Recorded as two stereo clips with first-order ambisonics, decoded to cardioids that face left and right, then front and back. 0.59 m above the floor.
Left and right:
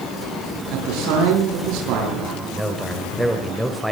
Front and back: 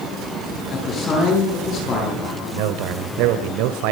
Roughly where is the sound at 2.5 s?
Behind.